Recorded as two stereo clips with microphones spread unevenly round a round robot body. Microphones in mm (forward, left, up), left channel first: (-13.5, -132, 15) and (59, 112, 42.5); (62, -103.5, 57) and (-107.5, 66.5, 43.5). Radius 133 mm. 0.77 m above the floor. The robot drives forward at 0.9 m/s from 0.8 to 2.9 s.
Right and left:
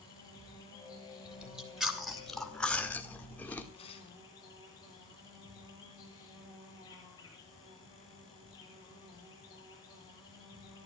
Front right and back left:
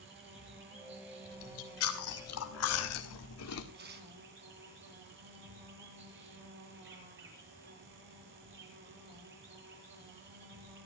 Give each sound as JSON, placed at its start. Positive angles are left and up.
{"t": 0.0, "sound": "an insect", "azimuth_deg": 175, "distance_m": 8.5}
{"t": 1.2, "sound": "chewing", "azimuth_deg": -15, "distance_m": 3.0}
{"t": 3.7, "sound": "tearing paper", "azimuth_deg": -175, "distance_m": 3.5}